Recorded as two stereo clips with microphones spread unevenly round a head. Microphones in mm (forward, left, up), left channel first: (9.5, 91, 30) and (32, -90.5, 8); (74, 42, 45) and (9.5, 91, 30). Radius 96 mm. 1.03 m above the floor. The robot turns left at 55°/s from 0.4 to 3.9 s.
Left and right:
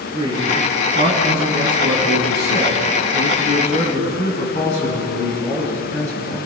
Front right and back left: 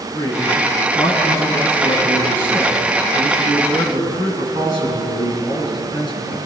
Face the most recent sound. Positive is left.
turn(degrees=155)